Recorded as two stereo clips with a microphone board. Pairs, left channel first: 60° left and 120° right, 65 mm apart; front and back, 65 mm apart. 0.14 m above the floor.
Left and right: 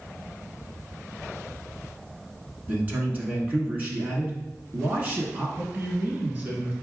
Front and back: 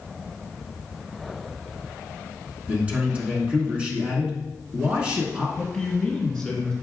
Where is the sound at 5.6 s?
75° right, 1.6 m.